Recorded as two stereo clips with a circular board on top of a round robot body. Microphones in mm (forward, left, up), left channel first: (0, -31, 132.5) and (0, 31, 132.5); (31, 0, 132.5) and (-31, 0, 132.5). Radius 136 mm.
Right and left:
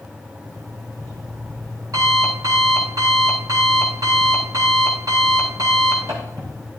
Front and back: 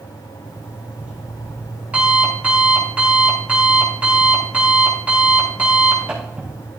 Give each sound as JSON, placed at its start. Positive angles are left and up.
{"t": 0.5, "sound": "an alarm clock", "azimuth_deg": 110, "distance_m": 4.5}